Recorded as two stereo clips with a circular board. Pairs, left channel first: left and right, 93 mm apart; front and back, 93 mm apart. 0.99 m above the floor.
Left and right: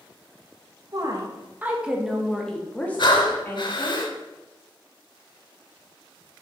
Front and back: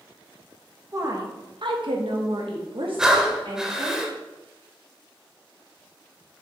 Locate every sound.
0.9 s a woman speaking: 130° right, 1.4 m; by 4.0 s 150° left, 3 m
3.0 s breathing: 95° left, 1.0 m